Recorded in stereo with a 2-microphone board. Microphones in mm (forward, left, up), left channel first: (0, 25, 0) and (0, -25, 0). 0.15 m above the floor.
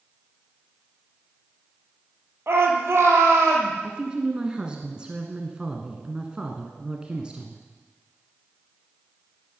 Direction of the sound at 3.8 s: 20° right (ahead or behind).